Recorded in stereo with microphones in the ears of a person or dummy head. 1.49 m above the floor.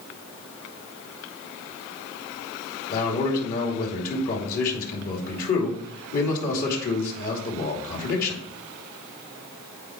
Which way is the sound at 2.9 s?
45° left (ahead or behind).